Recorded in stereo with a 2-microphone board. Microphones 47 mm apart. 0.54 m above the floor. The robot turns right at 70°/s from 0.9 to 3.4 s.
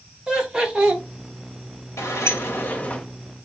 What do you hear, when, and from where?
0.3 s laughter: 20° right (ahead or behind), 1.1 m; by 1.0 s 10° right (ahead or behind), 1.1 m
2.0 s a sliding door: 85° left, 0.7 m; by 3.0 s 160° left, 0.7 m